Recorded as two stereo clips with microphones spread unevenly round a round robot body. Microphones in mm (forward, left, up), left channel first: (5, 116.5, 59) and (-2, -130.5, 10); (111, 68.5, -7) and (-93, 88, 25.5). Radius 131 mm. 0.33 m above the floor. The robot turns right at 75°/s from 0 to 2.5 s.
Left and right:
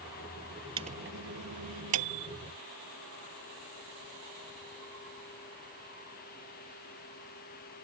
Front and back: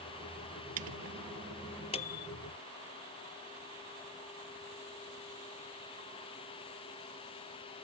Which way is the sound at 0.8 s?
165° right.